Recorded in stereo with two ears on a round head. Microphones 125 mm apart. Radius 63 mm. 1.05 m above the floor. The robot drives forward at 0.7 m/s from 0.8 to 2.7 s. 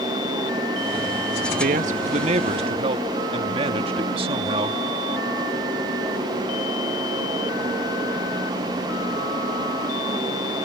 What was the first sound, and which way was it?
A man speaking, 60° right (ahead or behind).